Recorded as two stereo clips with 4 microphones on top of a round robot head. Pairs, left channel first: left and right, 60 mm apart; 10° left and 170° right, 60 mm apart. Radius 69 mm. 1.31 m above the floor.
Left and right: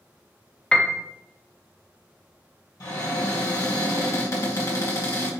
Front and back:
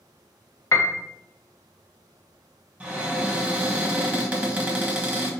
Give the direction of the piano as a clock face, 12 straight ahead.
11 o'clock.